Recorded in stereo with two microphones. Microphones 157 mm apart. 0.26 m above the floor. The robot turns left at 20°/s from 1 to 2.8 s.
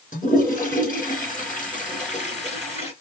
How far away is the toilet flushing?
About 2.5 m.